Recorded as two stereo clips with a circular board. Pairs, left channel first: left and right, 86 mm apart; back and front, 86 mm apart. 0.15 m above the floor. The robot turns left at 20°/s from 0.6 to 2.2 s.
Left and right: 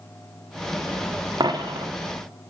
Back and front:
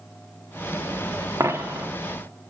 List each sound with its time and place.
1.4 s a dropped coin: 55° right, 0.6 m; by 1.9 s 65° right, 0.6 m